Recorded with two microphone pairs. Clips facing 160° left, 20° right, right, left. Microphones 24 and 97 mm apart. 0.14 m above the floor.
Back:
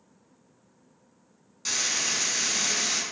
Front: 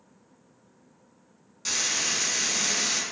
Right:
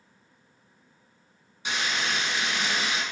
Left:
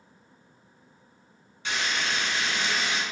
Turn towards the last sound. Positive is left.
turn(degrees=-130)